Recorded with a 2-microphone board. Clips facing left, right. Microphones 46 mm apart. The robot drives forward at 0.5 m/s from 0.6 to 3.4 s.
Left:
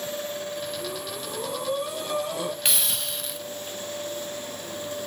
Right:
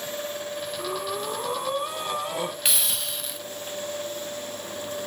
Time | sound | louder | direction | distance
0.8 | breathing | right 4 dB | 40° right (ahead or behind) | 2 m
2.6 | a hiss | even | centre (ahead or behind) | 0.6 m